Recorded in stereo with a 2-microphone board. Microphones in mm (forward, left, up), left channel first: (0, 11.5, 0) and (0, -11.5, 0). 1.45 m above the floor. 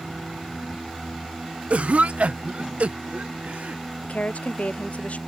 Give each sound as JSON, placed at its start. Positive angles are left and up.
{"t": 1.7, "sound": "a cough", "side_deg": -65}
{"t": 4.0, "sound": "a woman speaking", "side_deg": 70}